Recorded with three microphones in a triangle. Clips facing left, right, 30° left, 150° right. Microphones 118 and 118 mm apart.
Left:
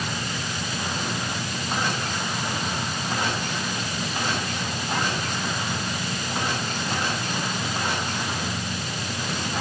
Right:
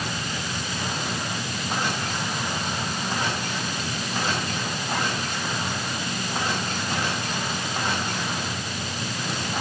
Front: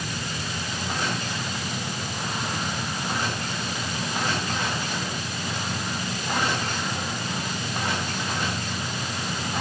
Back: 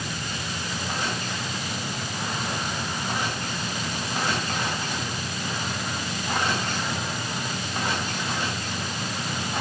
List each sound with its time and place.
Only background noise.